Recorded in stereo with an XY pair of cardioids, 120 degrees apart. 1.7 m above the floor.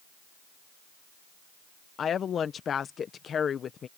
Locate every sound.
2.0 s a woman speaking: 45° left